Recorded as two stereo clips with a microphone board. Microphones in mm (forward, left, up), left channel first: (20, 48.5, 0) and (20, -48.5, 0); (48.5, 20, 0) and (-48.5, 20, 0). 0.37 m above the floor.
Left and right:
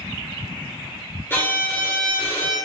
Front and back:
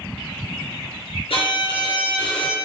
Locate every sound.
1.3 s a violin: 25° left, 2 m